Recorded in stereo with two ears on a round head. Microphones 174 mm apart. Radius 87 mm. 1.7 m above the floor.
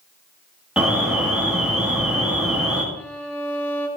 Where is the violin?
10° left (ahead or behind), 1.4 m.